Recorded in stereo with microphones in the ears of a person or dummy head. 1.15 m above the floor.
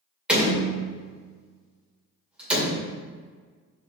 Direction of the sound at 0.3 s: 5° right (ahead or behind).